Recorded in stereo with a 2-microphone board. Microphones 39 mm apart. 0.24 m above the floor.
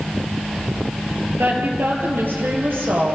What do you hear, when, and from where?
1.4 s a woman speaking: 75° right (ahead or behind), 4.5 m; by 3.2 s 80° right, 6.5 m